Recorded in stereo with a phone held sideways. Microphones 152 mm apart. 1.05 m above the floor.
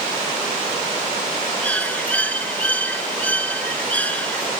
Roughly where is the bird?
Centre.